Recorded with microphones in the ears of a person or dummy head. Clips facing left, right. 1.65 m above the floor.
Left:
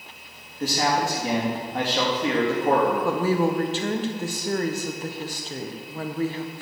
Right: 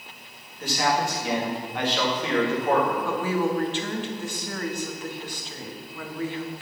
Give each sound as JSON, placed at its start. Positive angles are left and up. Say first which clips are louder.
{"t": 0.6, "sound": "a man speaking", "louder": "left 1 dB", "side_deg": 35, "distance_m": 3.0}
{"t": 3.0, "sound": "a woman speaking", "louder": "left 3 dB", "side_deg": 35, "distance_m": 1.1}